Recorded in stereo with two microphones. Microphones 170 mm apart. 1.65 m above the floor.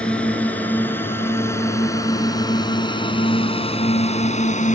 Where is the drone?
5° left (ahead or behind); by 4.8 s 45° left (ahead or behind).